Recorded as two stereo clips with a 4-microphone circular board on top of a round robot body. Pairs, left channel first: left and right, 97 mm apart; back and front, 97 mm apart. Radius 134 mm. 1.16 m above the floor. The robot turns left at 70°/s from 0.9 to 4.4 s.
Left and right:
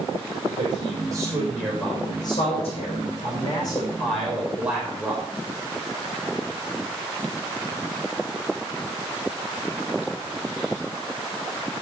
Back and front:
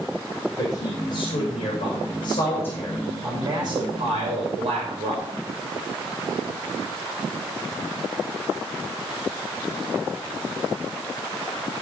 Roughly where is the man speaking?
Behind right.